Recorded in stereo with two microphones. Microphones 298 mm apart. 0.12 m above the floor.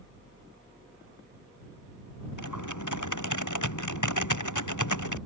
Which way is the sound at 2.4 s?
80° left.